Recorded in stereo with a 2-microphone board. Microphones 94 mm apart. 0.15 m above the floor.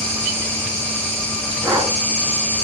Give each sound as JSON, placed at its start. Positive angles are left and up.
{"t": 0.0, "sound": "an insect", "side_deg": 10, "distance_m": 5.0}
{"t": 1.6, "sound": "breathing", "side_deg": -15, "distance_m": 5.5}